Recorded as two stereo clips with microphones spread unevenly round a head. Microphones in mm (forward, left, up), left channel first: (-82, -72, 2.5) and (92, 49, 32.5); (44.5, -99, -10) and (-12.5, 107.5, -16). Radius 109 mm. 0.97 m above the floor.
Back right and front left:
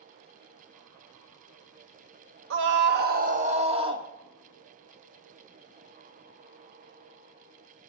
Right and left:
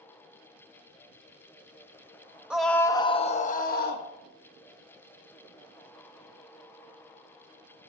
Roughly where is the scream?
Ahead.